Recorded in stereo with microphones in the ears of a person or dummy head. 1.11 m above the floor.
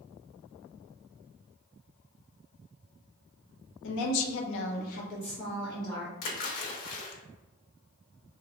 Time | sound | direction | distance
3.8 | a woman speaking | 65° left (ahead or behind) | 0.7 m
6.2 | a splash | 75° left (ahead or behind) | 0.8 m